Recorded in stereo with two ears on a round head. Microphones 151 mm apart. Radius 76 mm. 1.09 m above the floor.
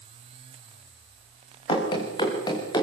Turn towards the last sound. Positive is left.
turn(degrees=25)  # may be behind; listen again after turning